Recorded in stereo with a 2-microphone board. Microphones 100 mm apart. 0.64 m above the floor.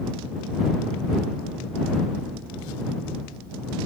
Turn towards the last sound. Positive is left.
No sound to turn to.